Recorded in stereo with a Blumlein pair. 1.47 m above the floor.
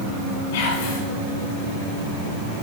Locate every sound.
0.5 s whispering: 55° left, 8.5 m